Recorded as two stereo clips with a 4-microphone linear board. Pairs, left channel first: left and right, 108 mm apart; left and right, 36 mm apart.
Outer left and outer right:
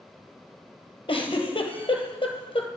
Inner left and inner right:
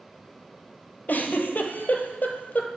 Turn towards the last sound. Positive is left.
turn(degrees=55)  # may be behind; listen again after turning